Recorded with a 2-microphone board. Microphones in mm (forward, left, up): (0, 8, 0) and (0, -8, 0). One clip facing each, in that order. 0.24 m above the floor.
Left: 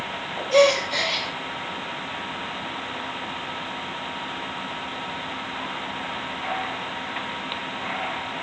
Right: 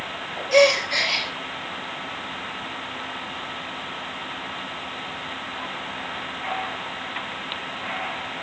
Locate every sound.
0.5 s a gasp: 35° right (ahead or behind), 3.5 m